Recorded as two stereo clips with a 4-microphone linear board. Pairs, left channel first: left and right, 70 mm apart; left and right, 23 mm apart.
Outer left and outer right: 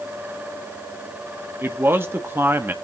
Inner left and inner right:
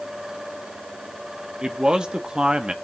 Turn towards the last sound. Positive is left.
turn(degrees=-35)  # may be behind; listen again after turning